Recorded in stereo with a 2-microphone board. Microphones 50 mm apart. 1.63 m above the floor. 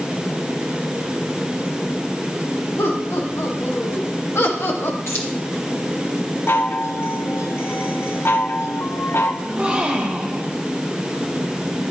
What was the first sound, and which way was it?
Laughter, 80° left.